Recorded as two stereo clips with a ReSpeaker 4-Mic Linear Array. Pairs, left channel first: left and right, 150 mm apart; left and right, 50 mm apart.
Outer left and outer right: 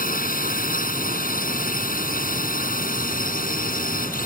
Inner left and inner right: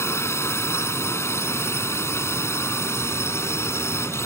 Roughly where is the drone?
Left.